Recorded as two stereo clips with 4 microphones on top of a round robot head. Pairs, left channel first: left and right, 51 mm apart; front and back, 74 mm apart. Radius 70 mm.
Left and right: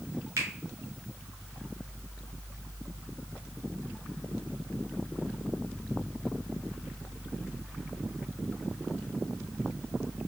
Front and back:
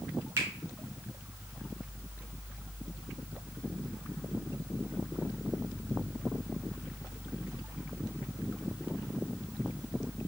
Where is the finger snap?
125° right, 1.7 m.